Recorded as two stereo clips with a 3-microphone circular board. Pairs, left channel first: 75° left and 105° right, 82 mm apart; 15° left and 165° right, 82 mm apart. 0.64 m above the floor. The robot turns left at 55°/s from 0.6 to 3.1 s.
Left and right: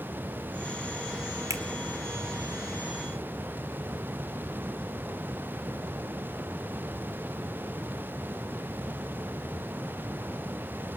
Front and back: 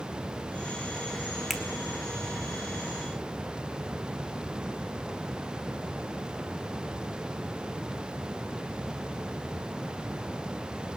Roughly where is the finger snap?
Right.